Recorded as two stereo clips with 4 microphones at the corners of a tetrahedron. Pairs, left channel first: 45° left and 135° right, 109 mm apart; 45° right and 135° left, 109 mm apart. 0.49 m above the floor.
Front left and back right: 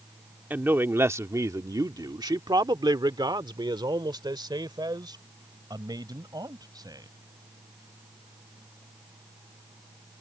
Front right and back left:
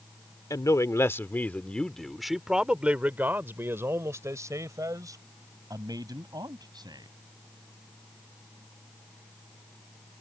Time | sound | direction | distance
0.5 | a man speaking | 70° right | ?